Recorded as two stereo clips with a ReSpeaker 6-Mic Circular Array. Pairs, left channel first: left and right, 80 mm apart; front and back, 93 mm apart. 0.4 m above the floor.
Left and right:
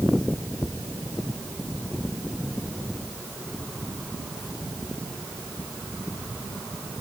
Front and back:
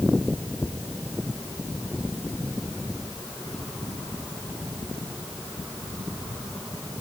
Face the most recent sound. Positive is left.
No sound to turn to.